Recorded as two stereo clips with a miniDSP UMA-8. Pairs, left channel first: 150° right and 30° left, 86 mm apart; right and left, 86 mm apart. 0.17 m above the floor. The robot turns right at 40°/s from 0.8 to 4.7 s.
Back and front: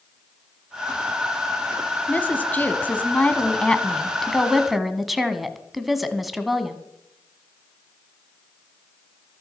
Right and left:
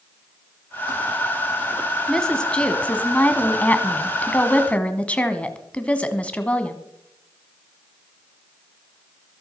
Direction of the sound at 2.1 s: 160° right.